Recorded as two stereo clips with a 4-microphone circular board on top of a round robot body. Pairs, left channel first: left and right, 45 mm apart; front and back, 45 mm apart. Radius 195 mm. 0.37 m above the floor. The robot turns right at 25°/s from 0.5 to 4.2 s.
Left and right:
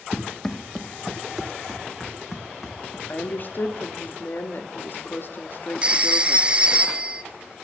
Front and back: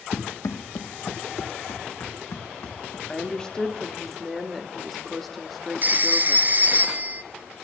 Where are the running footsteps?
20° left, 0.9 m; by 3.0 s 10° left, 2.5 m.